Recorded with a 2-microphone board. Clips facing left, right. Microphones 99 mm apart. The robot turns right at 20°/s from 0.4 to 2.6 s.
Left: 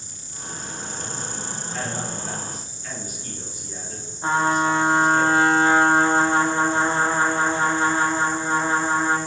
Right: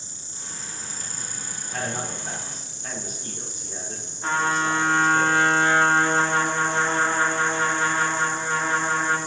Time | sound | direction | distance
0.0 | an insect | 155° right | 1.0 m
1.6 | a man speaking | 60° right (ahead or behind) | 4 m
4.2 | a trumpet | 25° left (ahead or behind) | 1.1 m